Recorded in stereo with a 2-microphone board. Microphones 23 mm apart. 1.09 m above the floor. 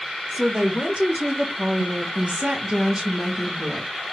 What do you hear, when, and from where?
0.3 s a woman speaking: 40° right (ahead or behind), 1.3 m; by 3.9 s 25° right (ahead or behind), 1.5 m